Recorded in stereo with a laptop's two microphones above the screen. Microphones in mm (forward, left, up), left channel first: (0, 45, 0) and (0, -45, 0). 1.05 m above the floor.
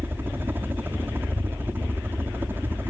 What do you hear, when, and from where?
0.0 s a helicopter: 25° right (ahead or behind)